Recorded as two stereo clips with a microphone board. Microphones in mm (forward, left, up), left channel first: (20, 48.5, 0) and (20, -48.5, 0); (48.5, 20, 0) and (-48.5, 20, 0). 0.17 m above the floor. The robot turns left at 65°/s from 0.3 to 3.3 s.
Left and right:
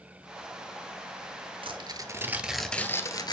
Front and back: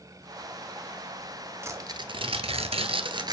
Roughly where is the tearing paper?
Behind right.